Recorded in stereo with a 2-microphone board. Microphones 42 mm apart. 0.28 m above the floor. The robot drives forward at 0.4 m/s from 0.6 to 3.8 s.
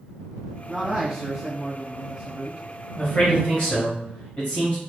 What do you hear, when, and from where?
0.7 s a man speaking: 10° right (ahead or behind), 1.5 m; by 2.6 s 15° right (ahead or behind), 1.1 m
3.0 s a man speaking: 25° left (ahead or behind), 1.2 m